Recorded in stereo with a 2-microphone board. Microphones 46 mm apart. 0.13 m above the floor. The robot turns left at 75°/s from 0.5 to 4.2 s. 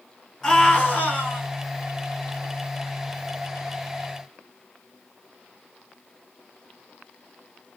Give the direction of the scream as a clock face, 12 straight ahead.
7 o'clock.